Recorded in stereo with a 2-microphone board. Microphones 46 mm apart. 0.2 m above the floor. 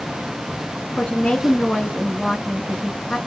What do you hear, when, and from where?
1.0 s a woman speaking: 15° left (ahead or behind), 3 m